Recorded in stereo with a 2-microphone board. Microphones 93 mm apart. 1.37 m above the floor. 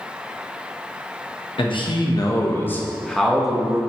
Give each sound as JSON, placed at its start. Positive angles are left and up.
{"t": 1.6, "sound": "a man speaking", "side_deg": 65, "distance_m": 1.3}